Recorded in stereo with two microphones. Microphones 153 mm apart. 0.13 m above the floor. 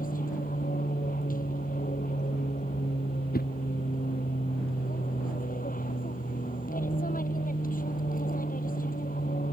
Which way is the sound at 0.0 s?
65° left (ahead or behind).